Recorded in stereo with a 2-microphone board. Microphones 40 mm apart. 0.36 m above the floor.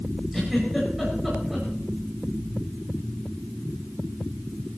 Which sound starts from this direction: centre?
A giggle, at 0.3 s.